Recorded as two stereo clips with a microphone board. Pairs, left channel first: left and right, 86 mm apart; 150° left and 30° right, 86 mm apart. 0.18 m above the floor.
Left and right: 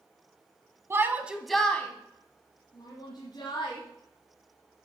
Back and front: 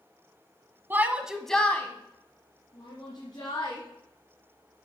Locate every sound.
0.9 s a shout: 70° right, 1.2 m; by 3.8 s 120° left, 3 m